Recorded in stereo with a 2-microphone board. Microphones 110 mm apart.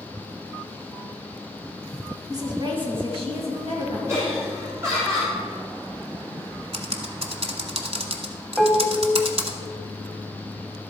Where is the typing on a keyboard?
65° right (ahead or behind), 1.0 m.